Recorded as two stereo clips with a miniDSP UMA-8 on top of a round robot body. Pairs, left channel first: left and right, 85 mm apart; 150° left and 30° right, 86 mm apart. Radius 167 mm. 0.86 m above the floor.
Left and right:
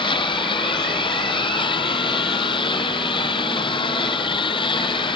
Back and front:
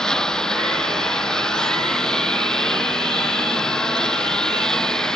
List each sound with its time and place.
0.0 s a lawn mower: 70° left